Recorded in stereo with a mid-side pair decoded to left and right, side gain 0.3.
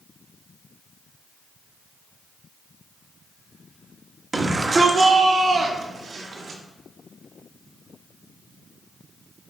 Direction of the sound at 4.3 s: 35° right.